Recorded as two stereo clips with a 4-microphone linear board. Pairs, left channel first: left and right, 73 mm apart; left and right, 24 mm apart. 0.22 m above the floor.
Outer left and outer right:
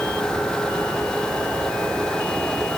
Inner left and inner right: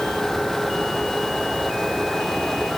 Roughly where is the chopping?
No chopping in this recording.